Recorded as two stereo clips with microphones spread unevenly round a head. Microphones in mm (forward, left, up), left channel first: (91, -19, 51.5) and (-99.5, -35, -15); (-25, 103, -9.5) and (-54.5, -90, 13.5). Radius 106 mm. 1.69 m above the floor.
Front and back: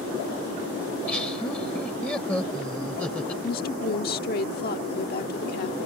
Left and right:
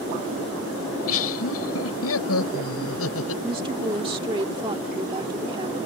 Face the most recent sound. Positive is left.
turn(degrees=-30)